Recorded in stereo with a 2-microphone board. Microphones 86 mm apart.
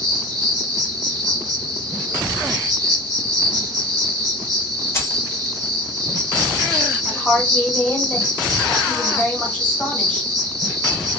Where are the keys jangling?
30° left (ahead or behind), 1.2 m.